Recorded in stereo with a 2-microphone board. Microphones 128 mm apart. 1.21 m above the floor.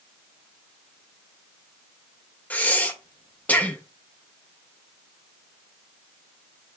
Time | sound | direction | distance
2.5 | breathing | 10° left (ahead or behind) | 0.6 m